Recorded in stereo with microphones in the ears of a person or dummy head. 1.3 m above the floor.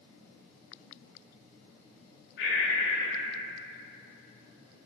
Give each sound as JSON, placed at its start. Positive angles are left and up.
{"t": 2.4, "sound": "breathing", "side_deg": 50, "distance_m": 0.6}